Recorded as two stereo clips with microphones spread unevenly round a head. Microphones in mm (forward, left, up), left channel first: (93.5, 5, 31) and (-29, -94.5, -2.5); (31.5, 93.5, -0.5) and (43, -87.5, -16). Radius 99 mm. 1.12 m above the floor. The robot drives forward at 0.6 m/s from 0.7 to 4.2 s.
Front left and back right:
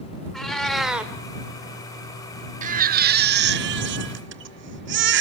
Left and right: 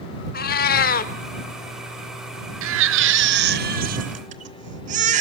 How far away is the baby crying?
About 0.9 m.